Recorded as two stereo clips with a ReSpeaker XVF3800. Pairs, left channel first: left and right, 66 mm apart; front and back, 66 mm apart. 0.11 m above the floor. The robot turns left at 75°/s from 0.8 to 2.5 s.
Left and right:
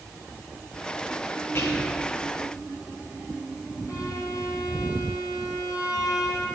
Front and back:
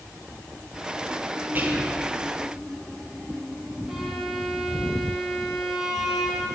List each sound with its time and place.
1.6 s whispering: 125° left, 2.5 m; by 2.0 s 90° left, 2.5 m
3.9 s a violin: 95° left, 2.5 m